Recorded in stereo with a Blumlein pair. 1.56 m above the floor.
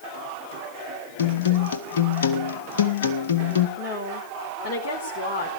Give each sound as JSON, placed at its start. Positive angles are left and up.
{"t": 1.2, "sound": "a guitar", "azimuth_deg": 60, "distance_m": 1.7}
{"t": 3.8, "sound": "a woman speaking", "azimuth_deg": 35, "distance_m": 4.5}